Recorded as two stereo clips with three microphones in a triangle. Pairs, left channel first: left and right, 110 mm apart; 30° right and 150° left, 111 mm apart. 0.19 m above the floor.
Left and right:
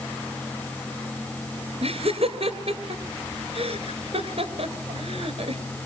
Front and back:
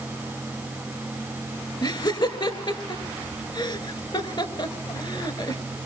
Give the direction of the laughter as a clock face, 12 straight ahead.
2 o'clock.